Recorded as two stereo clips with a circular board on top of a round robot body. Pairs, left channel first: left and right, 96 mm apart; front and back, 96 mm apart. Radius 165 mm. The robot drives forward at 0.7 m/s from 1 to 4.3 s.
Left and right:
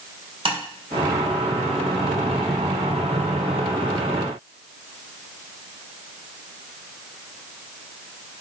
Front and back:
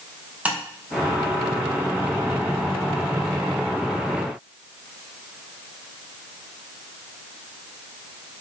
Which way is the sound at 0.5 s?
105° right.